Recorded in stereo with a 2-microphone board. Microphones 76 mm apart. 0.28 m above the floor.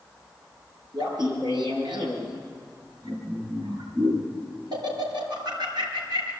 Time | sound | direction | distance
0.9 | laughter | 70° right (ahead or behind) | 5 m